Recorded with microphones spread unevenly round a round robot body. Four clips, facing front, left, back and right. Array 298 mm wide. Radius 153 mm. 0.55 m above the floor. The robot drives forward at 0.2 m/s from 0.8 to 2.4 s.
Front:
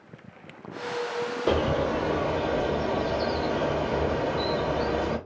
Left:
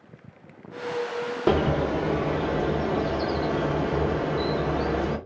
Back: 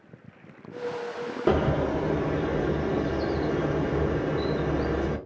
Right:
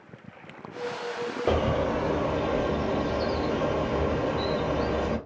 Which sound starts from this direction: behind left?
A bird, at 1.5 s.